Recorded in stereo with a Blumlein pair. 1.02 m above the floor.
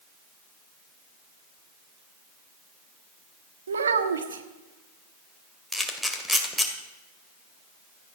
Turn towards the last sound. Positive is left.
turn(degrees=0)